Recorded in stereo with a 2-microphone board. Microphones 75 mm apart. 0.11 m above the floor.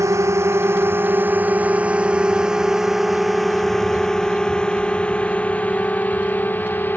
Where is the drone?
40° right (ahead or behind); by 7.0 s 25° left (ahead or behind).